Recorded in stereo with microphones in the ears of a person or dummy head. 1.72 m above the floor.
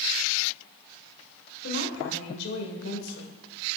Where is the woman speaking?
75° left (ahead or behind), 1.7 m.